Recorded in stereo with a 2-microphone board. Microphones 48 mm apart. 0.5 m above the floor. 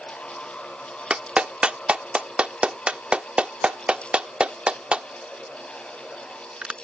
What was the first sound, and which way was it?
A clap, 25° right (ahead or behind).